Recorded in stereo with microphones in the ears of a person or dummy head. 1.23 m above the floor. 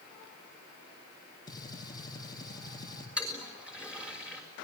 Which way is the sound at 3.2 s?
10° right (ahead or behind).